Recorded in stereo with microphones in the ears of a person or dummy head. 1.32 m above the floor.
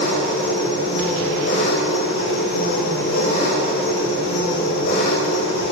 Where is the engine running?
55° left (ahead or behind), 5.5 m.